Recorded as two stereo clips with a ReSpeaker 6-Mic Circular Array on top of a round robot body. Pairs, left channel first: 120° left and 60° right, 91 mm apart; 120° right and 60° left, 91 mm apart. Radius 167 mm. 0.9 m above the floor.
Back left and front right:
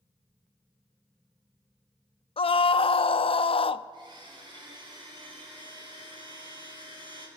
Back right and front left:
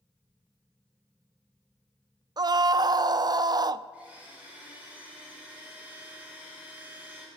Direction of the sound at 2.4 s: 105° left.